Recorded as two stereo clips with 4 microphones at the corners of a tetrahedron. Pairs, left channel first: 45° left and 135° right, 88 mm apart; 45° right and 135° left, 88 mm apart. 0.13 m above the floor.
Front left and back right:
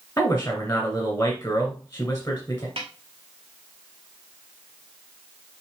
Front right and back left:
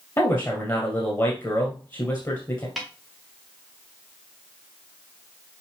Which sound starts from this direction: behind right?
A snare drum, at 2.8 s.